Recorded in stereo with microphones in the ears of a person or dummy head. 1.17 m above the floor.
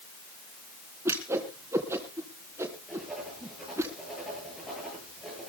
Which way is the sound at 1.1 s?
15° right (ahead or behind).